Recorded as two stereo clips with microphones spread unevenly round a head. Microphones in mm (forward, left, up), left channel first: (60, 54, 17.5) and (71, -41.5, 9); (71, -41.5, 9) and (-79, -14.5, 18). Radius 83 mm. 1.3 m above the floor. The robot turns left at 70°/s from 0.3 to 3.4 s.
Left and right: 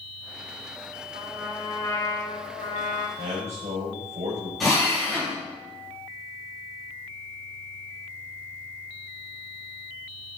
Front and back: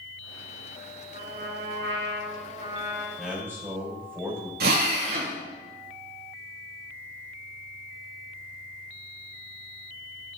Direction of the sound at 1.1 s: 135° right.